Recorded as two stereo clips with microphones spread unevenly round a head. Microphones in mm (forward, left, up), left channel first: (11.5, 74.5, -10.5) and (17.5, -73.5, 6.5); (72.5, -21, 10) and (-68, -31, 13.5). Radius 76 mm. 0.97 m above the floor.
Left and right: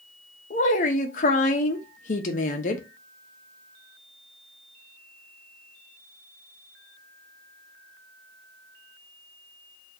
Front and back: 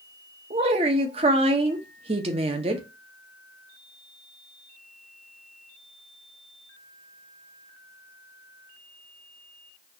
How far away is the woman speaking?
About 0.7 m.